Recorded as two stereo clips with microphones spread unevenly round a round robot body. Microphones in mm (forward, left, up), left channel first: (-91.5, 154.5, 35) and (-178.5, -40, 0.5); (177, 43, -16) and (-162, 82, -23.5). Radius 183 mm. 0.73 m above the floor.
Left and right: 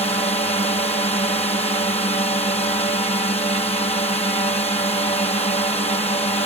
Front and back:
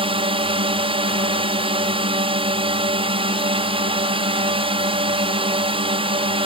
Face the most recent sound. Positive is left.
turn(degrees=115)